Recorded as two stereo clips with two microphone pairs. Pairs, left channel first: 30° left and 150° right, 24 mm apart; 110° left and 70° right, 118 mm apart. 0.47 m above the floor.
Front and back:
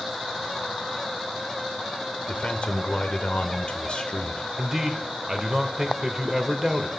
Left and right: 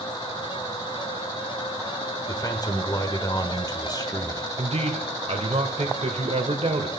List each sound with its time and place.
2.3 s a man speaking: 60° left, 1.1 m
4.6 s a man speaking: 75° right, 1.4 m